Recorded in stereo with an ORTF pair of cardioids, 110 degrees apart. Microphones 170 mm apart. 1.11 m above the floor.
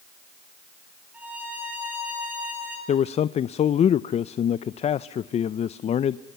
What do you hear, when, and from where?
1.1 s a violin: 10° right, 6.5 m
2.9 s a man speaking: 40° left, 0.5 m